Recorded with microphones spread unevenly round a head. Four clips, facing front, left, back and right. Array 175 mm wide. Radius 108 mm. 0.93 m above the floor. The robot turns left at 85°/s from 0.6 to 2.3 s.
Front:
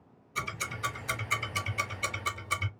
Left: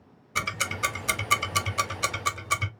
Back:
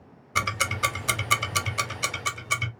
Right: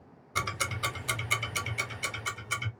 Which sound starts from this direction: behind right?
Ticking, at 0.3 s.